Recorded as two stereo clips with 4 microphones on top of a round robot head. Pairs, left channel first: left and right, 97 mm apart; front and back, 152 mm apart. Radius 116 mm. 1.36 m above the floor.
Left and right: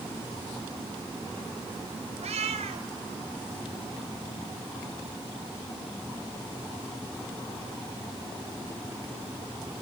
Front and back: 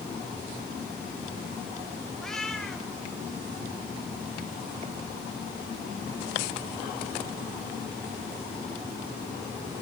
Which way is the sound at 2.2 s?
90° right.